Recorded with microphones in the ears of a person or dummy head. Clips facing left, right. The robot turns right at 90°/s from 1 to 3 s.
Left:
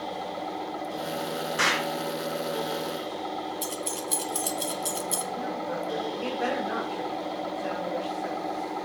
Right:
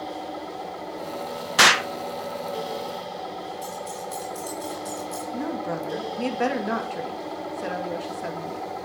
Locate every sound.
1.6 s an explosion: 70° right (ahead or behind), 0.6 m; by 1.9 s 80° right, 0.6 m
3.6 s keys jangling: 55° left (ahead or behind), 0.7 m
5.3 s a woman speaking: 80° right, 2.5 m